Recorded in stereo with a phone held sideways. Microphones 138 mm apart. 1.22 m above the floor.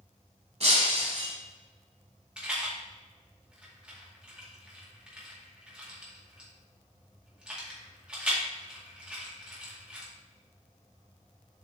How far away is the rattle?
About 2 m.